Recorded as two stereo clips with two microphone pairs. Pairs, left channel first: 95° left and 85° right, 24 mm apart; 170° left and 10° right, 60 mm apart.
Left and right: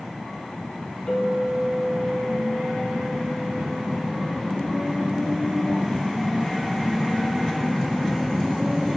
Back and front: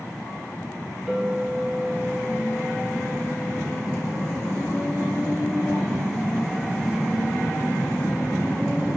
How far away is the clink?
About 2.5 m.